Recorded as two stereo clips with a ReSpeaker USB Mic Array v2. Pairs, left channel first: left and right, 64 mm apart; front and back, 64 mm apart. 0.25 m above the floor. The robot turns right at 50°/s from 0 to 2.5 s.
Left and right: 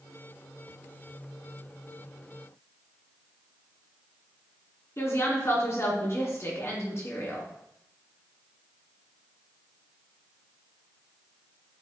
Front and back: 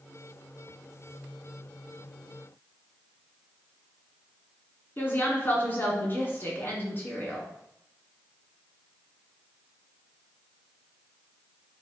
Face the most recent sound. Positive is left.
turn(degrees=55)